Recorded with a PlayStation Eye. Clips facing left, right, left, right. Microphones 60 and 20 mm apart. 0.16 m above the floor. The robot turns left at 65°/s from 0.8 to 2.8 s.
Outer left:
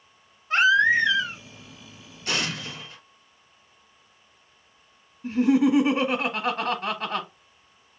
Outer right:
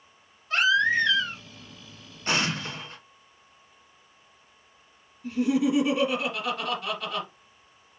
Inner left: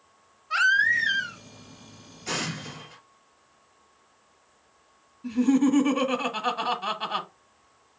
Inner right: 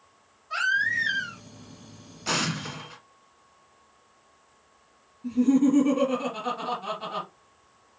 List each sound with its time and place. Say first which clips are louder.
0.5 s a baby crying: outer left 4 dB, inner left 4 dB; 40° left, 1.1 m; by 1.4 s straight ahead, 1.1 m
2.3 s an explosion: outer right 2 dB, inner right 3 dB; 65° right, 1.5 m; by 3.0 s 100° right, 1.5 m
5.2 s laughter: outer left 4 dB, inner right 1 dB; 35° left (ahead or behind), 1.3 m